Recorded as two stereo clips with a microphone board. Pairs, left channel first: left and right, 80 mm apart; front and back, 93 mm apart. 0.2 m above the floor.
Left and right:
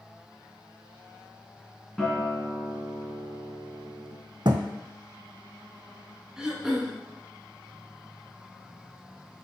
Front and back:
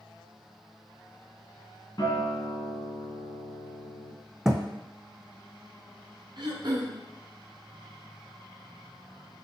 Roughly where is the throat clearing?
Behind.